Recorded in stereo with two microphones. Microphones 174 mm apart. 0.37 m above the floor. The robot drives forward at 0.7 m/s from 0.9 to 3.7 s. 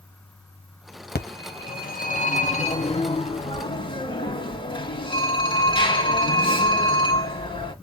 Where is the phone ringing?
65° left (ahead or behind), 1.1 m; by 7.7 s 30° left (ahead or behind), 2 m.